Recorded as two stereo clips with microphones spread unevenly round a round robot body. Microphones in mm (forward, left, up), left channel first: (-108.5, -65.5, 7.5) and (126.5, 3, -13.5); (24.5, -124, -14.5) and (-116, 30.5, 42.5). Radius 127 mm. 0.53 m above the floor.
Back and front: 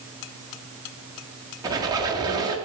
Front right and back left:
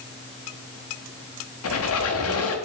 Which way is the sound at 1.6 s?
60° right.